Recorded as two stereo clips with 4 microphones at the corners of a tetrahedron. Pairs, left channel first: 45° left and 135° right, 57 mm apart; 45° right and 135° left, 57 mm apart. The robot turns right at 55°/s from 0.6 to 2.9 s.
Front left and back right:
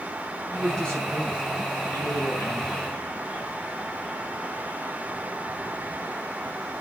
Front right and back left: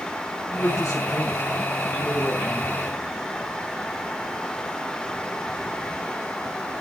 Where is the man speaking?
40° right, 4.5 m; by 2.8 s 80° left, 4.5 m.